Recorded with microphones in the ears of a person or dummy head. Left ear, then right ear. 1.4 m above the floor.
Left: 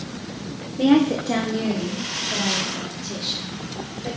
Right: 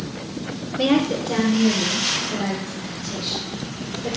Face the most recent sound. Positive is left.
turn(degrees=75)  # may be behind; listen again after turning